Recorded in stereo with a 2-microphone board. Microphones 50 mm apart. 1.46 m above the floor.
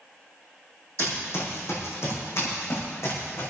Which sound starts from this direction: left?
Running footsteps, at 1.0 s.